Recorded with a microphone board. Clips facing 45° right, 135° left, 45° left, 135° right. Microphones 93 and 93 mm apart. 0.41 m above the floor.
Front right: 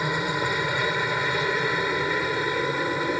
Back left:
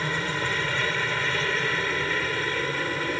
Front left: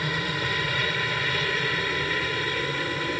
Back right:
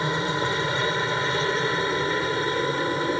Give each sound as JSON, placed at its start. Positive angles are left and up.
{"t": 0.0, "sound": "a helicopter", "azimuth_deg": -105}